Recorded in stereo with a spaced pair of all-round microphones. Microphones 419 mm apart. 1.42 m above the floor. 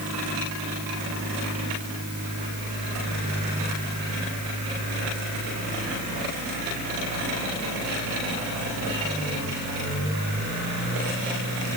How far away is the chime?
I don't hear a chime.